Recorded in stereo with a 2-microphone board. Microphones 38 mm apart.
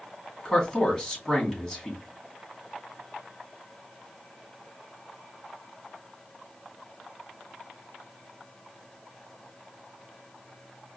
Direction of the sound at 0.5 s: 25° left (ahead or behind).